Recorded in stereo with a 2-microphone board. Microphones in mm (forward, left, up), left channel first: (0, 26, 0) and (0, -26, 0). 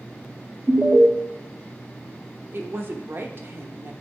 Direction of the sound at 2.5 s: 45° right (ahead or behind).